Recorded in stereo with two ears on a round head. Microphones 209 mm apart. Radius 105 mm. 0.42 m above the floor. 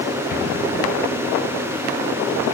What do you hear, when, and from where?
0.3 s an explosion: 35° left (ahead or behind), 2.5 m